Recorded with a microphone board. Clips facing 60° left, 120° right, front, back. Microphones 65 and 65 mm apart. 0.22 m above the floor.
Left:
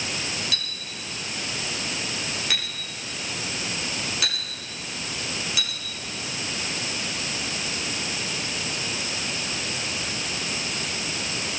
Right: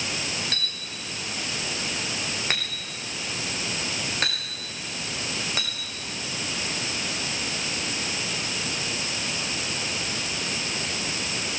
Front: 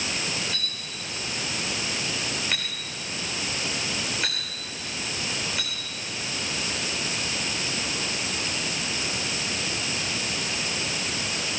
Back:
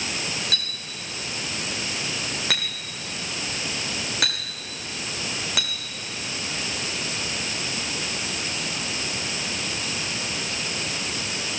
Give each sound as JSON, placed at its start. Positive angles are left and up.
{"t": 0.5, "sound": "a clink", "azimuth_deg": -170, "distance_m": 8.0}